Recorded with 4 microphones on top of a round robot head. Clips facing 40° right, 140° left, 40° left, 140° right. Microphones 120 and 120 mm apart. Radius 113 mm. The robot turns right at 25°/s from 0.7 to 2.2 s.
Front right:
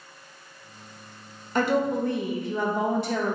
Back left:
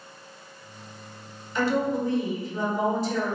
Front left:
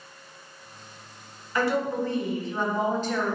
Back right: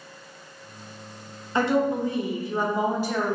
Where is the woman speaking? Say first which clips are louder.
Front right 1 dB, back right 3 dB; 75° right, 0.7 m; by 3.4 s 60° right, 0.7 m.